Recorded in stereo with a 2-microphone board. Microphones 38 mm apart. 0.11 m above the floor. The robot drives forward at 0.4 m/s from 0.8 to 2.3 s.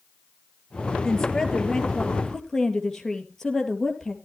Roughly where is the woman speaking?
Centre.